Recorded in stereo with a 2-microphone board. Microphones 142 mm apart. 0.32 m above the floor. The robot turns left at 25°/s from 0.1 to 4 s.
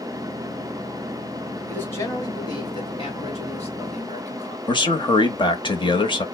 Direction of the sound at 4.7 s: 35° left (ahead or behind).